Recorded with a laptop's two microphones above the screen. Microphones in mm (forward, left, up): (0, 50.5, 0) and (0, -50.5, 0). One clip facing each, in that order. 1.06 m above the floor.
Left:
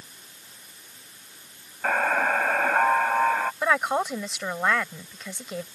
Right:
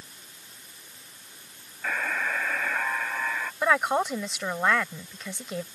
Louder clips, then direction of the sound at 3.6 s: Right 3 dB; centre (ahead or behind).